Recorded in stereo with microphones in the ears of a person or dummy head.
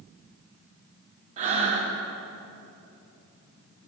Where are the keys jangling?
I don't hear keys jangling.